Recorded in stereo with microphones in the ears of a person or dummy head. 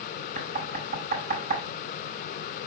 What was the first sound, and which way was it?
Knocking, 50° right (ahead or behind).